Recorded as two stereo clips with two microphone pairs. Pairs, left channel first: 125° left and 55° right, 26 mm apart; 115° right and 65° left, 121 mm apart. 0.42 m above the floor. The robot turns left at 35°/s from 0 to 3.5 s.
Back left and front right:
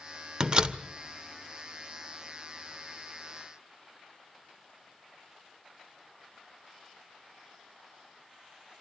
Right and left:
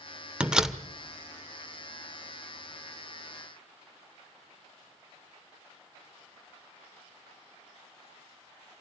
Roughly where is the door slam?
Ahead.